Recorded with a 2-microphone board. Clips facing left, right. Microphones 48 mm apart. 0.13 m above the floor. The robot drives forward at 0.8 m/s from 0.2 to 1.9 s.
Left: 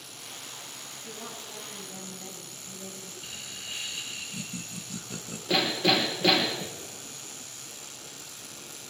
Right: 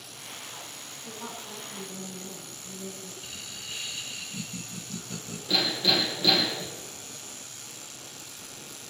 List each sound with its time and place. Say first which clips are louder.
1.1 s a woman speaking: right 3 dB; 20° right (ahead or behind), 9 m
3.2 s laughter: even; 10° left (ahead or behind), 1.1 m
5.5 s hammering: left 2 dB; 55° left (ahead or behind), 2.5 m